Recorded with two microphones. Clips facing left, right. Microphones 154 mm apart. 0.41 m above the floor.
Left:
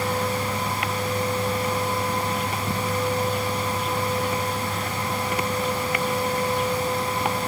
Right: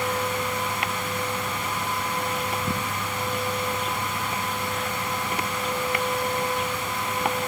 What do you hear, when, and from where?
Only background noise.